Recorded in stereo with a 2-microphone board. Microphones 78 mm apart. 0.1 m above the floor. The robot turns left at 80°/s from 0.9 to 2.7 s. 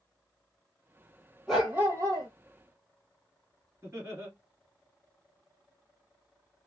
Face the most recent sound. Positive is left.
turn(degrees=-35)  # may be behind; listen again after turning